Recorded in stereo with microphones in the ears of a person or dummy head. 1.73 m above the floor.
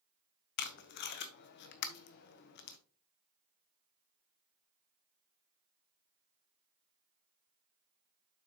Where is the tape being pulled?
55° left (ahead or behind), 0.9 m.